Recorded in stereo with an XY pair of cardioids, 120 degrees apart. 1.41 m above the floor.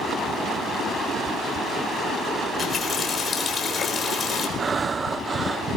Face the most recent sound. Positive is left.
turn(degrees=-25)